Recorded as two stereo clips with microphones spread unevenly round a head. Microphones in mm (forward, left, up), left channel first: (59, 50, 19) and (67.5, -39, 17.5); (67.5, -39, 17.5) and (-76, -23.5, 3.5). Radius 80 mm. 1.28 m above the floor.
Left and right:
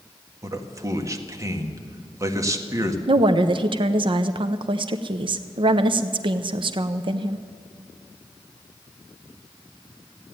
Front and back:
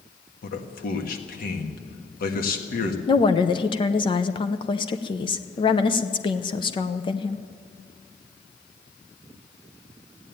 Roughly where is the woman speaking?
Ahead right.